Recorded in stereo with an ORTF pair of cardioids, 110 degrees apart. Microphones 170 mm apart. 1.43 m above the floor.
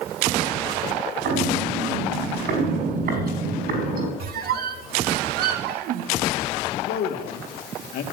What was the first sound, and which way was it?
Footsteps, 65° right.